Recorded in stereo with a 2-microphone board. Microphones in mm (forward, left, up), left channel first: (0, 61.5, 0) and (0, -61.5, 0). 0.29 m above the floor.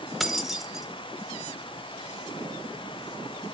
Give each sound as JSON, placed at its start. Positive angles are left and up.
{"t": 0.2, "sound": "keys jangling", "side_deg": 0, "distance_m": 1.1}